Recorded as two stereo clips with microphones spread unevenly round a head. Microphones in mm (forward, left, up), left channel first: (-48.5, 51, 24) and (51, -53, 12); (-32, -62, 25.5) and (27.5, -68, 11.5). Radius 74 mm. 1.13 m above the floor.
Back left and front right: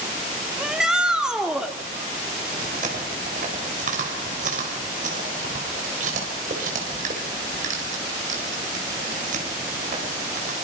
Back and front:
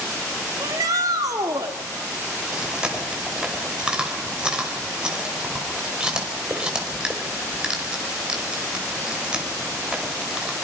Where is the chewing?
80° right, 5 m.